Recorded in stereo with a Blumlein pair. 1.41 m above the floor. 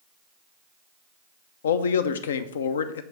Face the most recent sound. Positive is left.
turn(degrees=65)